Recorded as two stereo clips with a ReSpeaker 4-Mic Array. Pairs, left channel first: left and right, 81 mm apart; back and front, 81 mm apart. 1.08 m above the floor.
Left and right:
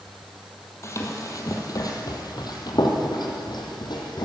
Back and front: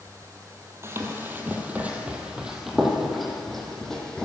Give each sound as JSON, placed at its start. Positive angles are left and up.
{"t": 0.8, "sound": "running footsteps", "azimuth_deg": 50, "distance_m": 1.7}